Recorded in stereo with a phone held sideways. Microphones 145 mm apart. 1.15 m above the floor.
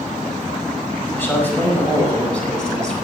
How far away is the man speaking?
About 5 m.